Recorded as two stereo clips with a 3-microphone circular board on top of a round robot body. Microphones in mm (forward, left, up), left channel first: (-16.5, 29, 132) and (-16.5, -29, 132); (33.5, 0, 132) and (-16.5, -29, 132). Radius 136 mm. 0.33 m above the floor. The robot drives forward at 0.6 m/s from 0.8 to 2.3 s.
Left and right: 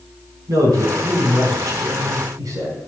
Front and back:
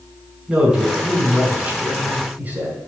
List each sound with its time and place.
0.5 s a man speaking: 75° right, 4 m; by 2.9 s 90° right, 4 m